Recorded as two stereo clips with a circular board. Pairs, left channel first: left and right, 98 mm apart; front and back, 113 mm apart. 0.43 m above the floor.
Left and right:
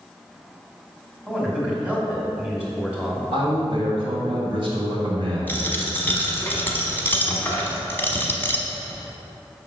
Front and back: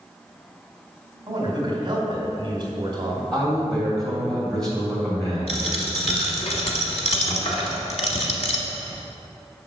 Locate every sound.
1.3 s a man speaking: 160° right, 1.8 m
3.3 s a man speaking: 85° right, 1.9 m
5.5 s a dropped coin: 20° left, 1.0 m